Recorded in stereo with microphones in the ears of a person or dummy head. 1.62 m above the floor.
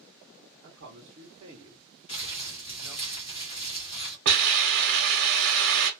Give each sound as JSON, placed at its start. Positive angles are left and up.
{"t": 0.6, "sound": "a man speaking", "side_deg": -50, "distance_m": 0.7}
{"t": 2.1, "sound": "crumpling", "side_deg": 25, "distance_m": 0.9}
{"t": 4.2, "sound": "a hiss", "side_deg": -65, "distance_m": 0.9}